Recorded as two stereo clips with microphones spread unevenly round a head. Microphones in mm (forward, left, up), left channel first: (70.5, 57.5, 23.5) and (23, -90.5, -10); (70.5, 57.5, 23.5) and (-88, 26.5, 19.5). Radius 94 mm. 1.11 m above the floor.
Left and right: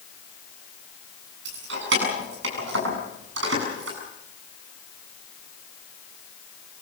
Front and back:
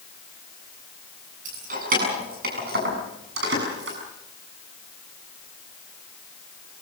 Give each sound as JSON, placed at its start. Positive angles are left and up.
{"t": 1.4, "sound": "keys jangling", "azimuth_deg": -115, "distance_m": 7.5}